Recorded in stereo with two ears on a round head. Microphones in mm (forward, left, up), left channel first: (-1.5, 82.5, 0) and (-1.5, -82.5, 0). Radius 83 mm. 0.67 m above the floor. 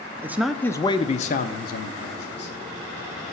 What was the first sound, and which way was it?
A man speaking, 15° right (ahead or behind).